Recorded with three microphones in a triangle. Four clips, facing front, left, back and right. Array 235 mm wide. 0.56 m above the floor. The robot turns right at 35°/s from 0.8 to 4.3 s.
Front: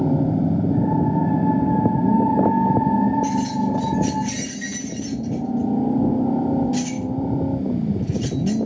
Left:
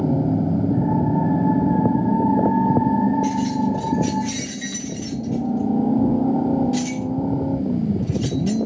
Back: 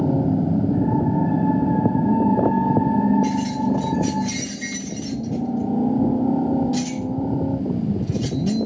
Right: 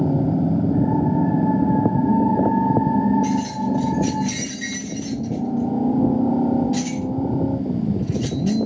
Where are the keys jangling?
165° left, 1.7 m; by 8.7 s 160° right, 1.7 m.